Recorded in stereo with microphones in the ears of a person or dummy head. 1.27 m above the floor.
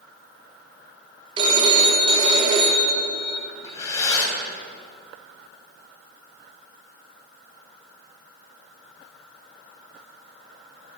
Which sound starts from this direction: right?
A phone ringing, at 1.4 s.